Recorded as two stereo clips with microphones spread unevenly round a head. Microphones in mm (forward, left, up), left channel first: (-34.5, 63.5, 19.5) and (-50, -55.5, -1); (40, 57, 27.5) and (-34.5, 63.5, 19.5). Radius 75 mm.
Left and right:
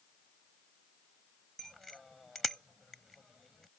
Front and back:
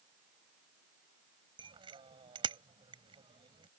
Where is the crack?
I don't hear a crack.